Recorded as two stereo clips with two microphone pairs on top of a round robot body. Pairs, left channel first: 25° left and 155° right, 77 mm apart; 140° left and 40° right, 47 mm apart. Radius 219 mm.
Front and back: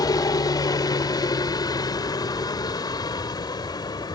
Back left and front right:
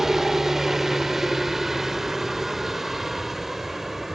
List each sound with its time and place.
0.0 s a helicopter: 40° left